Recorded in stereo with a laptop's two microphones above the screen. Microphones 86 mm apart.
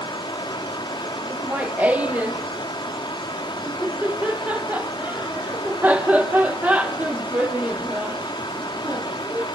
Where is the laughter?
20° right (ahead or behind), 1.2 m.